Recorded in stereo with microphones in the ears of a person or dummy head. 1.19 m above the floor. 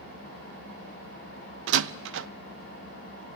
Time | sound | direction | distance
0.0 | an engine running | 85° right | 5 m
1.7 | a door slam | 70° right (ahead or behind) | 0.5 m